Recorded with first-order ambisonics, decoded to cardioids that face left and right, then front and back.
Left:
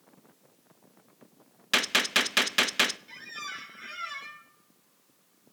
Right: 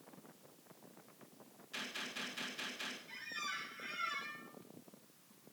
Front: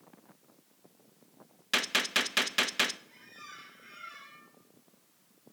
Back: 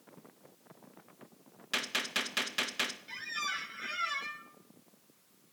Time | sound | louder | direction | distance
1.7 | a gunshot | left 19 dB, front 5 dB | 70° left | 0.5 m
3.1 | a squeak | left 4 dB, back 13 dB | 160° left | 1.5 m